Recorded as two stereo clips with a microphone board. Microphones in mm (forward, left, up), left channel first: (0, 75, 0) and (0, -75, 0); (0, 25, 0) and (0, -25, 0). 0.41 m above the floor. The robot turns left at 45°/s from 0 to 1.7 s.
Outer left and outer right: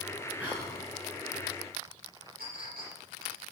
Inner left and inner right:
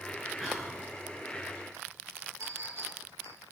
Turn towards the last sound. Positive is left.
turn(degrees=-85)